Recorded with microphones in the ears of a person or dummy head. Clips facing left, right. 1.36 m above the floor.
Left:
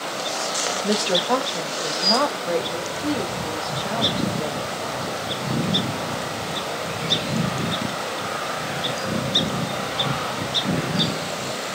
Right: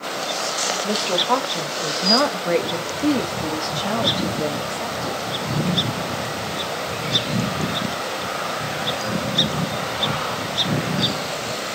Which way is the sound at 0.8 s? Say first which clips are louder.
Left 1 dB; 15° left (ahead or behind).